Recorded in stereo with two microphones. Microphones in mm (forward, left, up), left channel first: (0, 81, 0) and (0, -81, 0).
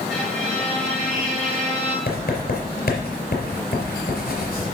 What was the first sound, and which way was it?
A violin, 5° left (ahead or behind).